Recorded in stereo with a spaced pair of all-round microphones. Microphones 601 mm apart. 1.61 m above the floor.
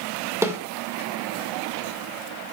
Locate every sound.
0.4 s a snare drum: 5° right (ahead or behind), 2.0 m